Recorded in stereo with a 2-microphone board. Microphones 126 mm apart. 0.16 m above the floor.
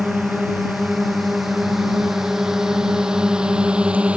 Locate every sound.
0.0 s a drone: centre (ahead or behind); by 4.2 s 10° right (ahead or behind)